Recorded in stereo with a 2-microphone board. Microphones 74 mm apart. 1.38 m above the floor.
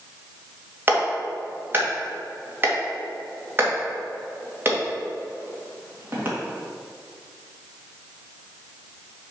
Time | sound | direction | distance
0.9 | a clap | 30° right (ahead or behind) | 2 m